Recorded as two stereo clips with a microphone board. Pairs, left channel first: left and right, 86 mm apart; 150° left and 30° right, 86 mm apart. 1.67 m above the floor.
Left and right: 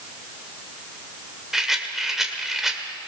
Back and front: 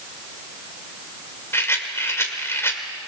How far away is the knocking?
No knocking in this recording.